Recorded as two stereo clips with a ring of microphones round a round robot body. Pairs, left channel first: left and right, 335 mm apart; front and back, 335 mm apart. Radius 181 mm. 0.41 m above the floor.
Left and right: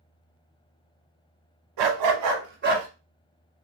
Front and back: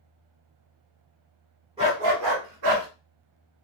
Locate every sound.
1.8 s a dog barking: 105° right, 0.8 m; by 2.9 s 155° right, 1.3 m